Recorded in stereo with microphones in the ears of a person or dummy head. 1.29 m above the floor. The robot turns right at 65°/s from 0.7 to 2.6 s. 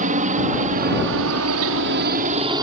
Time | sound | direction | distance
0.0 | a helicopter | 30° right (ahead or behind) | ?